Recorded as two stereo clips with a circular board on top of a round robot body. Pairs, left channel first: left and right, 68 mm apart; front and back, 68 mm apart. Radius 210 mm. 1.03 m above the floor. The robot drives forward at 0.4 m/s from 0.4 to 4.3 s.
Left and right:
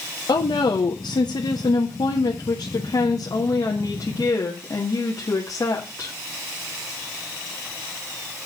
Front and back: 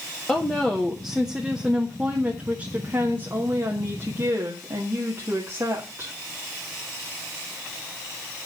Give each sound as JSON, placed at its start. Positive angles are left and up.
{"t": 0.3, "sound": "a woman speaking", "azimuth_deg": 75, "distance_m": 1.3}